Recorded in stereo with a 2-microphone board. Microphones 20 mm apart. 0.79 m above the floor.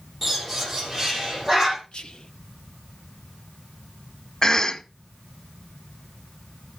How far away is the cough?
About 0.9 m.